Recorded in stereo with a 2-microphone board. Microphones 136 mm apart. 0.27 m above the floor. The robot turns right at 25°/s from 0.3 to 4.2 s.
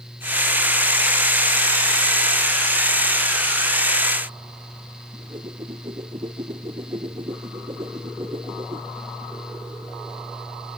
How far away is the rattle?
No rattle in this recording.